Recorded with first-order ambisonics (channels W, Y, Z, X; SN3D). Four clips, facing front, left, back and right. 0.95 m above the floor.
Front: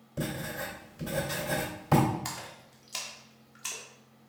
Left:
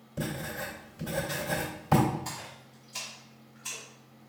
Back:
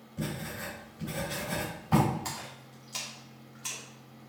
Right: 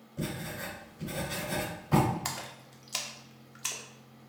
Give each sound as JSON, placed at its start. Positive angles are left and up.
{"t": 0.2, "sound": "writing", "azimuth_deg": 35, "distance_m": 2.5}
{"t": 2.2, "sound": "a splash", "azimuth_deg": -75, "distance_m": 1.1}